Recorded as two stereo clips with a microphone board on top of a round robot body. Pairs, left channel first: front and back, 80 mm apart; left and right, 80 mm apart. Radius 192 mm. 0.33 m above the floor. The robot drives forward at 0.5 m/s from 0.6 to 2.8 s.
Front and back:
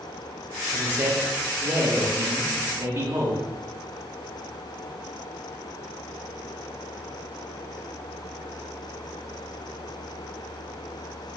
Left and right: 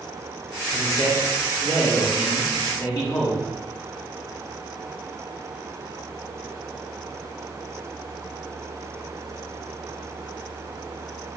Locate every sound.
0.7 s a man speaking: 115° left, 5 m; by 3.4 s 125° left, 5.5 m